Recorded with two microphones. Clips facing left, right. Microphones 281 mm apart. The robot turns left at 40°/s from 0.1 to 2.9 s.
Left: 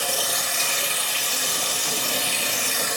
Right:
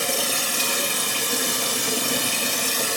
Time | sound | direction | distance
0.0 | running water | 25° right | 1.8 m